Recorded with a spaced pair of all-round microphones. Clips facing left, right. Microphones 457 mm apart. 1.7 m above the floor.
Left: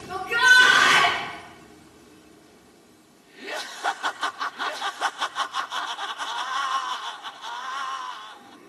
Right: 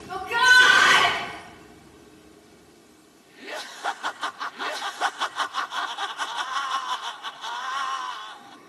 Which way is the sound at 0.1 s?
15° right (ahead or behind).